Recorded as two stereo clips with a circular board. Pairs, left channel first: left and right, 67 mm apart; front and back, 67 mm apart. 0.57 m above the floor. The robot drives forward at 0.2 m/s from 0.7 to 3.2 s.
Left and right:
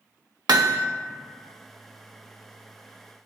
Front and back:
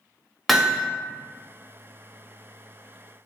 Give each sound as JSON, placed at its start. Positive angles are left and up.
{"t": 0.5, "sound": "hammering", "azimuth_deg": -90, "distance_m": 0.7}